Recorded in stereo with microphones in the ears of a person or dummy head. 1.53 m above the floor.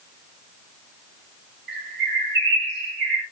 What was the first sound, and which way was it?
A bird, 60° right (ahead or behind).